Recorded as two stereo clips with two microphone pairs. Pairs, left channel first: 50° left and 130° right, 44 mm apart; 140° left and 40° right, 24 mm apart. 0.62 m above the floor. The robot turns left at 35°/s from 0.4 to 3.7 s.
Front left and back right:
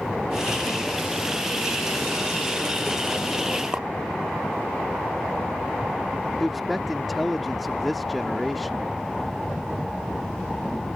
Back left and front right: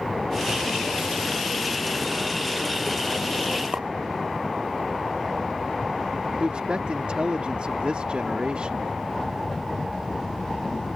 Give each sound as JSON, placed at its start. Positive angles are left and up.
{"t": 3.7, "sound": "a clink", "azimuth_deg": -65}
{"t": 6.4, "sound": "a man speaking", "azimuth_deg": -40}